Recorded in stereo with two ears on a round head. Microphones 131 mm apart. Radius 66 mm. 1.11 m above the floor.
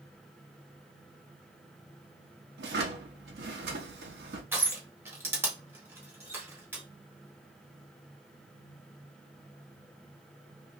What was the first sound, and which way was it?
A drawer, 80° right.